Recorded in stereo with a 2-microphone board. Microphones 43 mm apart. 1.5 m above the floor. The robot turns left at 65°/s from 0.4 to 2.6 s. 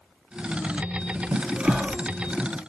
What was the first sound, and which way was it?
Whispering, 45° right (ahead or behind).